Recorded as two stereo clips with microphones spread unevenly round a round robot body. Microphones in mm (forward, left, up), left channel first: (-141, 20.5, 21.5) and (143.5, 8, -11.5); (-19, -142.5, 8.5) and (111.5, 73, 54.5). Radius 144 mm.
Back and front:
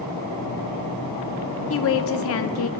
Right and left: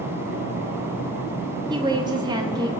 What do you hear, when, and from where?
1.7 s a woman speaking: 135° left, 1.0 m